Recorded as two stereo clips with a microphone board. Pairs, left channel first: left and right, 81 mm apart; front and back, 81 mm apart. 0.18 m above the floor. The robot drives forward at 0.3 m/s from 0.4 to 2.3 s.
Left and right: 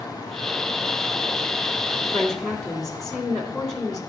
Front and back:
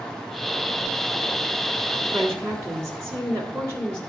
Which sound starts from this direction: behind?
A woman speaking, at 2.0 s.